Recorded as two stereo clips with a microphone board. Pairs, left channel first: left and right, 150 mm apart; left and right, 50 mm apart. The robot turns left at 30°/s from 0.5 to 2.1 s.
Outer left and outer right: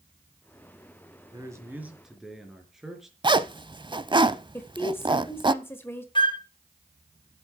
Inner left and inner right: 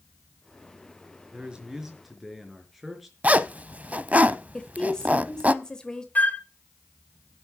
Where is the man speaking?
25° right (ahead or behind), 4 m; by 3.1 s 5° right (ahead or behind), 4 m.